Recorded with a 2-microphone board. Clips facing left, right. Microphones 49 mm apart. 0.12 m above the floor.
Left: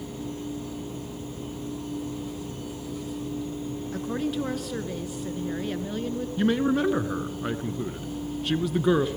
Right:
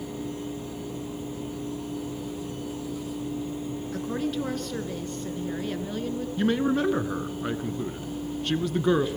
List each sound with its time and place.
3.9 s a woman speaking: 5° left (ahead or behind), 1.9 m
6.4 s a man speaking: centre (ahead or behind), 1.1 m